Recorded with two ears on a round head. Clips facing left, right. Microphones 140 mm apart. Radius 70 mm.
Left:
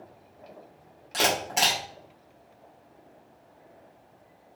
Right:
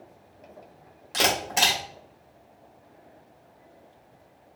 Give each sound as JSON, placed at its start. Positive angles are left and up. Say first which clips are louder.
{"t": 1.1, "sound": "a camera shutter", "louder": "right 1 dB", "side_deg": 0, "distance_m": 1.6}